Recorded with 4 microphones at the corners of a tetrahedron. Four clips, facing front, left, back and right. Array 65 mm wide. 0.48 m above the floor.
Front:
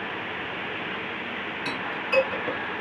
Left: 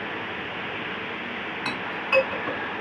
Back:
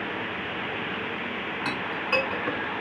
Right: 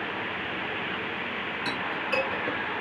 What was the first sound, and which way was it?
A clink, 135° left.